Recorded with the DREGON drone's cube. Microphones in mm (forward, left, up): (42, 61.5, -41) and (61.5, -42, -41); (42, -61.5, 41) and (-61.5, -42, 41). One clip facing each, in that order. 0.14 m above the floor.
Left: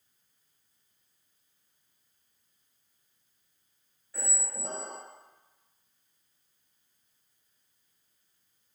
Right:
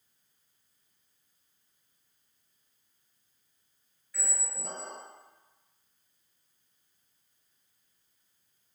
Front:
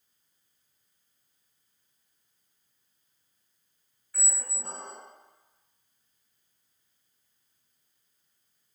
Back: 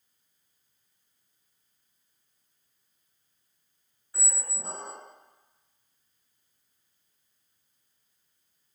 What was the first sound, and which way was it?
A squeak, 115° left.